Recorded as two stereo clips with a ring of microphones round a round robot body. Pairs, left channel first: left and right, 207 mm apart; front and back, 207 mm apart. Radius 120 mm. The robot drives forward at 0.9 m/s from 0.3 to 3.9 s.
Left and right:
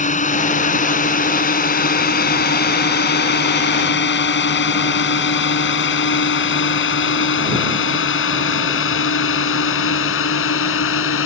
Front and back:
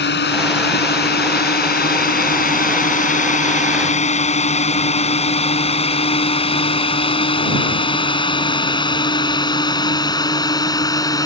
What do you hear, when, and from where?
0.0 s a drone: 35° left; by 11.3 s 75° left